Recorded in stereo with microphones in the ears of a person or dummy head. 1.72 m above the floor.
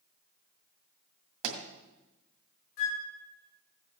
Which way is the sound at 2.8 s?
60° left (ahead or behind).